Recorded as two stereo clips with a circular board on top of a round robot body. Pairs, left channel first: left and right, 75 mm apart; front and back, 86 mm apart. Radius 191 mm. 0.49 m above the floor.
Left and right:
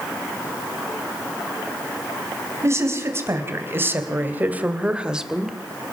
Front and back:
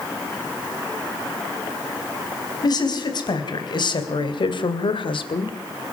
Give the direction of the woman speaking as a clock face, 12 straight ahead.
1 o'clock.